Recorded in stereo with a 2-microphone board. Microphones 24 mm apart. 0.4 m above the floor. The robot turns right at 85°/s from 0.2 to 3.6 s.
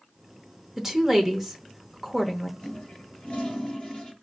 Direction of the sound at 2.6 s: 45° left.